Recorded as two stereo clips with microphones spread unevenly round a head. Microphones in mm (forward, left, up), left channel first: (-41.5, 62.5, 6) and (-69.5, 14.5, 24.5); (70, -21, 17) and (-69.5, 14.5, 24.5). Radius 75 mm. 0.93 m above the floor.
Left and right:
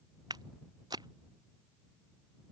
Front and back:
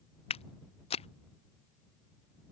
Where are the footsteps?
70° right.